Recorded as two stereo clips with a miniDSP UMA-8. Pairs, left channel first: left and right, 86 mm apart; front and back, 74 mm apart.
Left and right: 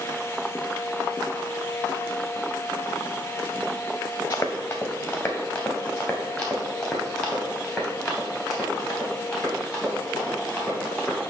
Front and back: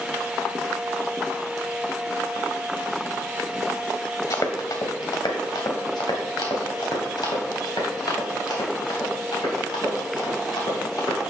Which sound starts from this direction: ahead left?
Running footsteps, at 4.3 s.